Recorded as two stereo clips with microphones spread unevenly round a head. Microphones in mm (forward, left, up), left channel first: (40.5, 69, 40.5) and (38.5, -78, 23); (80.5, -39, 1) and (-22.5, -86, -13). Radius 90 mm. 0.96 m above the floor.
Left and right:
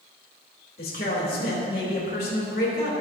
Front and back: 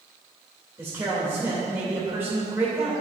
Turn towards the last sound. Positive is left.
turn(degrees=125)